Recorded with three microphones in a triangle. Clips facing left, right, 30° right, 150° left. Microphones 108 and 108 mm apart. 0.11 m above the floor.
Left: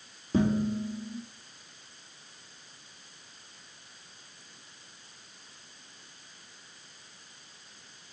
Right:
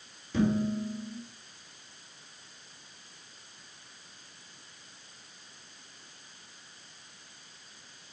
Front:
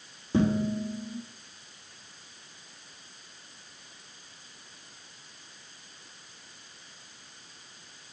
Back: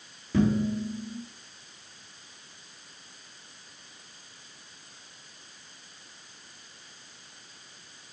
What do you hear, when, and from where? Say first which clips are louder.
0.3 s dishes clattering: left 1 dB, back 1 dB; 35° left, 4 m